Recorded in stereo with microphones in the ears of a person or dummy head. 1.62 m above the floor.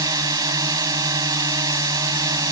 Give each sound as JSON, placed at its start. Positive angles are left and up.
{"t": 0.0, "sound": "a drone", "side_deg": -20}